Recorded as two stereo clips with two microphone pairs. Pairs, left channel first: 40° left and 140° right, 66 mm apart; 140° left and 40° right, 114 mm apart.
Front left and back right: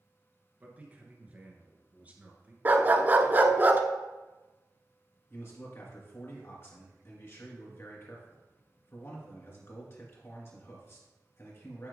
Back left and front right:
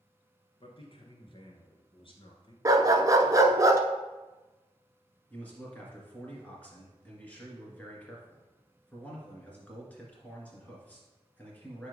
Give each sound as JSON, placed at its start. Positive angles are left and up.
{"t": 0.6, "sound": "a man speaking", "azimuth_deg": 160, "distance_m": 1.8}
{"t": 2.6, "sound": "a dog barking", "azimuth_deg": -85, "distance_m": 0.7}
{"t": 5.3, "sound": "a man speaking", "azimuth_deg": 70, "distance_m": 2.0}